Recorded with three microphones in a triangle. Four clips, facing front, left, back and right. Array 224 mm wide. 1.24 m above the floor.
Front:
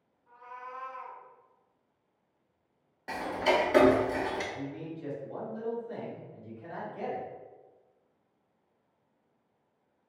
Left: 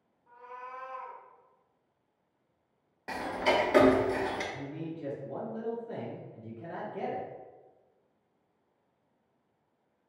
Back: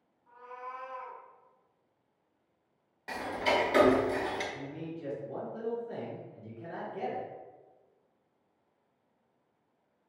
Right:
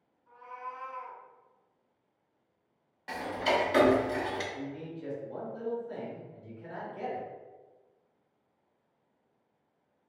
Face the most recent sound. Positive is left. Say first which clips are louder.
# left 1 dB, front 2 dB
turn(degrees=115)